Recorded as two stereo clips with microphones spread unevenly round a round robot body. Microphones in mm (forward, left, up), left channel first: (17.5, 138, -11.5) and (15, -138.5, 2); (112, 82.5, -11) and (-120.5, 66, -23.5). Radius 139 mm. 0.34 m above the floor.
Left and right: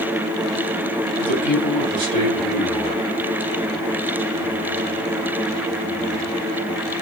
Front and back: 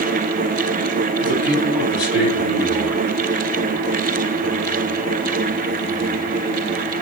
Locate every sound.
1.2 s a man speaking: 90° right, 2.5 m